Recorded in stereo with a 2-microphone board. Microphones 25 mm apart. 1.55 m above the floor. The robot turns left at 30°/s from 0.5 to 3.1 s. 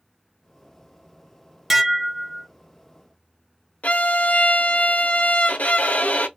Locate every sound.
1.7 s dishes clattering: centre (ahead or behind), 0.8 m; by 2.5 s 15° left (ahead or behind), 0.8 m
3.8 s a violin: 75° left (ahead or behind), 0.8 m